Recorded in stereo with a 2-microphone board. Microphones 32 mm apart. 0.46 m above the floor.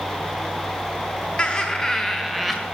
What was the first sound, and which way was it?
Laughter, 35° left (ahead or behind).